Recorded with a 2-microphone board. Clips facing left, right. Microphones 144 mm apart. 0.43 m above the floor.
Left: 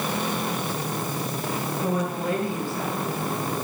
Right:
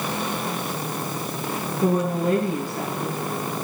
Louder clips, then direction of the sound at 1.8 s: Right 7 dB; 45° right (ahead or behind).